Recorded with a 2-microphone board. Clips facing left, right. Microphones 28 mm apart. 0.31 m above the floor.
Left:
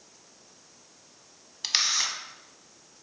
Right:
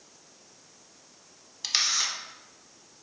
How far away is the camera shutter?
About 0.6 m.